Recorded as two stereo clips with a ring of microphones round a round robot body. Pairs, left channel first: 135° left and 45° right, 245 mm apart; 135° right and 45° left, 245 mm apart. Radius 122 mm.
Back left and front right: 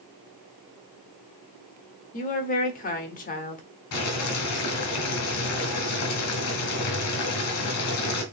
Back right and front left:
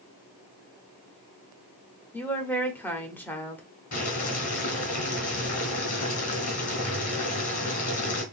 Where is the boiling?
165° left, 1.8 m.